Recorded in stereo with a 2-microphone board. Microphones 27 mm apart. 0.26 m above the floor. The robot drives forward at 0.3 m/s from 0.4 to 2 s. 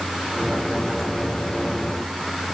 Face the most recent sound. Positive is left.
No sound to turn to.